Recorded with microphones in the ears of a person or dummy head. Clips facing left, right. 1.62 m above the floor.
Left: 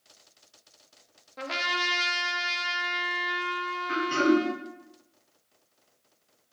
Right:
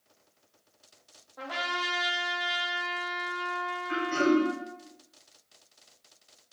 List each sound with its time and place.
1.4 s a trumpet: 35° left (ahead or behind), 0.6 m
3.9 s throat clearing: 60° left (ahead or behind), 1.5 m